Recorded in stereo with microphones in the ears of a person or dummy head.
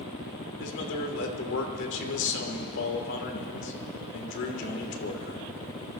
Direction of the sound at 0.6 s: 70° left (ahead or behind).